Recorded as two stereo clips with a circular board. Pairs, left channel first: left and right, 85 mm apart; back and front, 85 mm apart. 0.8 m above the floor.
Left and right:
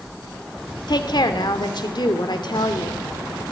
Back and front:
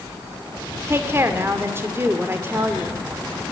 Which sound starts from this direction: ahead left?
A woman speaking, at 0.9 s.